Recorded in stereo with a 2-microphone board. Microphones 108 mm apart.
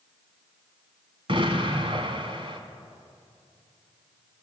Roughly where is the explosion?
Right.